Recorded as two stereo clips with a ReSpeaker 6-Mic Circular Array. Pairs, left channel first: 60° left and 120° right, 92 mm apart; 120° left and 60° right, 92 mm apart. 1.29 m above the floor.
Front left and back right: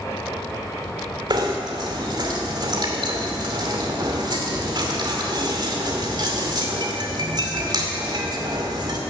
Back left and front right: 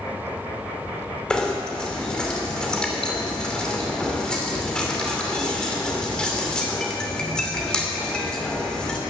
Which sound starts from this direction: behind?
Knocking, at 1.3 s.